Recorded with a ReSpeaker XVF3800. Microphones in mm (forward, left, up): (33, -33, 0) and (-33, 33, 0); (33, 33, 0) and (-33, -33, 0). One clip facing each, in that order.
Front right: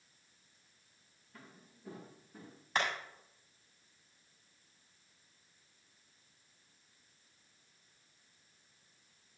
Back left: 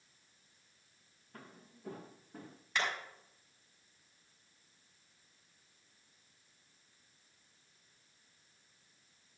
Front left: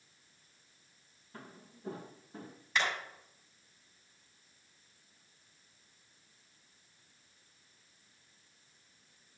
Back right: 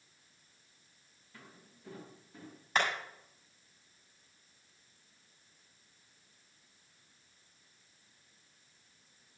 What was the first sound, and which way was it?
Footsteps, 95° left.